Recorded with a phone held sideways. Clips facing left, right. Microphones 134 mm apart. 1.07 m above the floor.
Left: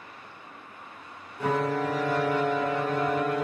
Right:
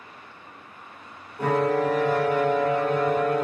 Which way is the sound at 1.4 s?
50° right (ahead or behind).